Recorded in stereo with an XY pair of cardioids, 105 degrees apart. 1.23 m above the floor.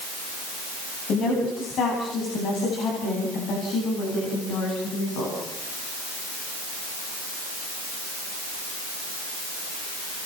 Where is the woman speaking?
65° left, 9.5 m; by 5.5 s 80° left, 11.5 m.